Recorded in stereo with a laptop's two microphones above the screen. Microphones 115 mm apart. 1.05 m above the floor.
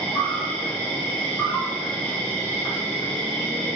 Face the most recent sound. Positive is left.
turn(degrees=15)  # may be behind; listen again after turning